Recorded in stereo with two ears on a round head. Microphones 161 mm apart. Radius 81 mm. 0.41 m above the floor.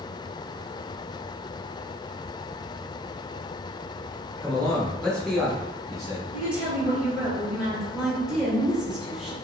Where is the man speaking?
5° left (ahead or behind), 1.0 m; by 6.2 s centre (ahead or behind), 1.0 m.